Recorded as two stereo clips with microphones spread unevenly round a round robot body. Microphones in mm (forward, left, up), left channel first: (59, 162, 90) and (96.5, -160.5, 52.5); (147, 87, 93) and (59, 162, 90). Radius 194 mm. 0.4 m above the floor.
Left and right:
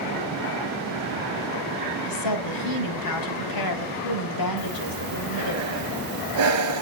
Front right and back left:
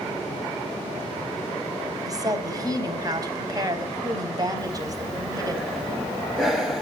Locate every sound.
2.0 s a woman speaking: 85° left, 4 m
4.6 s breathing: 130° right, 1.0 m